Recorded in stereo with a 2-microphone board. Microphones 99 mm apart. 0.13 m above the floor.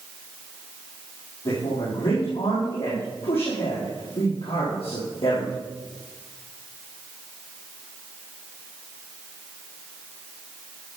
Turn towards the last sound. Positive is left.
turn(degrees=75)  # may be behind; listen again after turning